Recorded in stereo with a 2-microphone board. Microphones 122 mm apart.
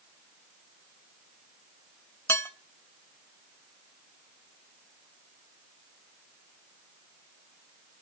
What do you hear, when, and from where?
2.3 s dishes clattering: 20° left (ahead or behind), 0.9 m